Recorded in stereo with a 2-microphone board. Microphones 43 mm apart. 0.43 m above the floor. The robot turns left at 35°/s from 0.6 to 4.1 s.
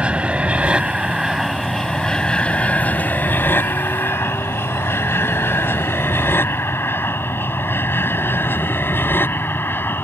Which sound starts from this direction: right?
An aircraft, at 0.0 s.